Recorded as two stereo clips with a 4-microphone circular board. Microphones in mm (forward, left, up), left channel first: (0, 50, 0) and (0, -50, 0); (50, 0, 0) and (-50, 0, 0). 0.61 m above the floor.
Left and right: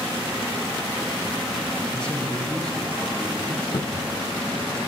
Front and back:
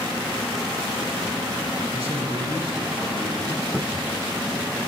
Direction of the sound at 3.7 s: 100° left.